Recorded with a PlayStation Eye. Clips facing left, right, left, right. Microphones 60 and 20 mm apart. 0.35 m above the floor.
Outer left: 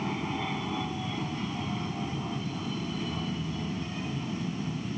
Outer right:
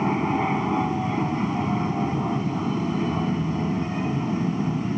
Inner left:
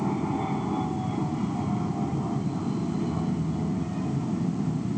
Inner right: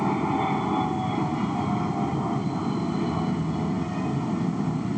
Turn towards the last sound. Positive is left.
turn(degrees=-35)  # may be behind; listen again after turning